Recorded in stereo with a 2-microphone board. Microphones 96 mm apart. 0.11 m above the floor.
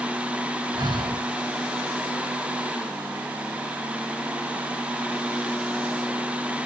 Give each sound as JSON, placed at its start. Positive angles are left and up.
{"t": 0.7, "sound": "breathing", "side_deg": -50, "distance_m": 0.6}